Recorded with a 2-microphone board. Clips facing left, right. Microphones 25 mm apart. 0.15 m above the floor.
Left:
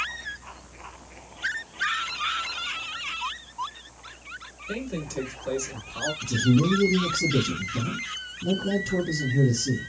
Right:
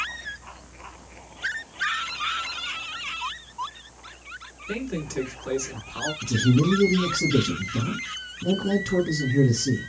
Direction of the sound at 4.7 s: 25° right (ahead or behind).